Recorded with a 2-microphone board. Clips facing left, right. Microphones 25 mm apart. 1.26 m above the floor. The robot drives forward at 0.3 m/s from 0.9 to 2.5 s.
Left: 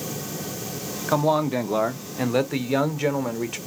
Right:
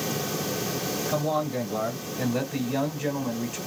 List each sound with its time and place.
1.1 s a man speaking: 75° left (ahead or behind), 0.7 m; by 3.6 s 60° left (ahead or behind), 0.8 m